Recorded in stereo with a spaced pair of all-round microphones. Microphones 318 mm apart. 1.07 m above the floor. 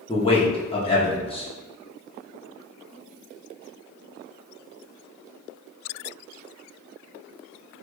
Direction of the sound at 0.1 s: 15° left (ahead or behind).